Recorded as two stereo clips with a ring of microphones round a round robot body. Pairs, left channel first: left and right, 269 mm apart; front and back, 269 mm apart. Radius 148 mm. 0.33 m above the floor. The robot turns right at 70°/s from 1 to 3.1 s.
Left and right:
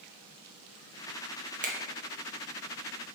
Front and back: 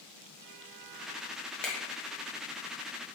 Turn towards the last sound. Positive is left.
turn(degrees=20)